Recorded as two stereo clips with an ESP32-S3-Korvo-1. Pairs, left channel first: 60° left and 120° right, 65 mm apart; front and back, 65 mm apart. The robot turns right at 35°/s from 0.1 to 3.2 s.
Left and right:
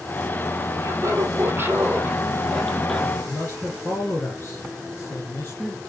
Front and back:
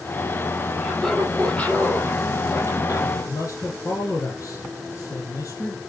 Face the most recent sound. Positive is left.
turn(degrees=5)